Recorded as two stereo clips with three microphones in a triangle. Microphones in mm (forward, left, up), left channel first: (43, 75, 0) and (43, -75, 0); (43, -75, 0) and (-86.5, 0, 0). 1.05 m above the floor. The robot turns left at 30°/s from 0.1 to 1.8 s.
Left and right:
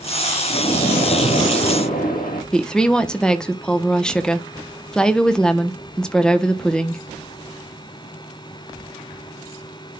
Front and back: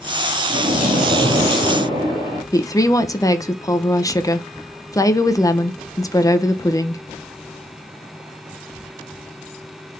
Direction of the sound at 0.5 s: 130° left.